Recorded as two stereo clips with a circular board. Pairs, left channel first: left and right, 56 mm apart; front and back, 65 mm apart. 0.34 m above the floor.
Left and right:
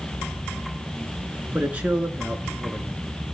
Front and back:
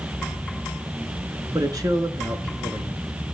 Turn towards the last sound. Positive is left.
turn(degrees=-160)